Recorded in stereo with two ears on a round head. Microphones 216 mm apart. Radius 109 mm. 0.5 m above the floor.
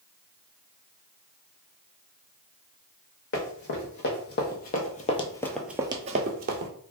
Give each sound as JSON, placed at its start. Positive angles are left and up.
{"t": 3.3, "sound": "running footsteps", "side_deg": 50, "distance_m": 1.3}